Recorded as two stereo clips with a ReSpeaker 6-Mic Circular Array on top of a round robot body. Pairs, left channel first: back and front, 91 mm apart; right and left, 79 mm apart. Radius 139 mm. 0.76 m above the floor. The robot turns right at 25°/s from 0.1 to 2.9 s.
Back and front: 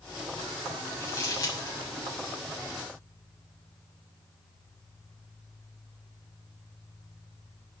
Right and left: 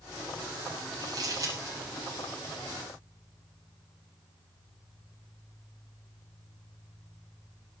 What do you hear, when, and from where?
1.0 s crumpling: 120° left, 7.5 m; by 1.8 s 140° left, 7.5 m